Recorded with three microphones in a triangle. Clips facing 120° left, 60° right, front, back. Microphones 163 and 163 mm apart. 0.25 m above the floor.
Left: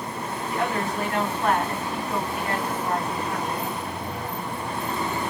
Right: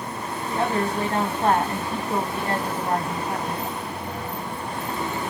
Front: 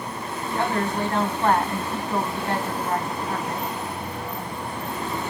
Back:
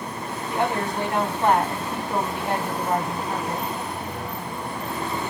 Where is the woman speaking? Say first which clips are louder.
Right 3 dB, even; 110° right, 2 m.